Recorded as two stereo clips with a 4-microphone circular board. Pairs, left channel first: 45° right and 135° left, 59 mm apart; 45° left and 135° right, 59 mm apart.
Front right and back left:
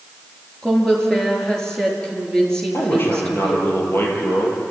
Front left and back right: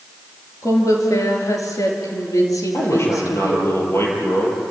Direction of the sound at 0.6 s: 30° left.